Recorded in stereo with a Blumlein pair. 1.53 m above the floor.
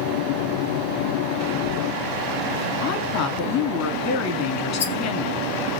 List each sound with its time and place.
2.8 s a woman speaking: 40° left, 3.5 m
4.8 s a rattle: 65° left, 3 m